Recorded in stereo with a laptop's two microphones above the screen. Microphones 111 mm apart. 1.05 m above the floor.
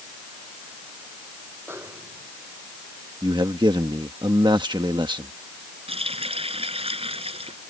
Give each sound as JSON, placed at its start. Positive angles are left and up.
{"t": 1.7, "sound": "a snare drum", "side_deg": -20}
{"t": 3.2, "sound": "a man speaking", "side_deg": -45}
{"t": 5.9, "sound": "a running tap", "side_deg": -60}